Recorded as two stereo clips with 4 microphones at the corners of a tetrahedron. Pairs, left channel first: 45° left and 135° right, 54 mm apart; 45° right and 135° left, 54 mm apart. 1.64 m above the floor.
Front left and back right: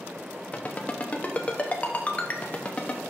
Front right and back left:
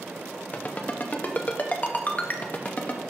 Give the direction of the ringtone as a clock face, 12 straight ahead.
12 o'clock.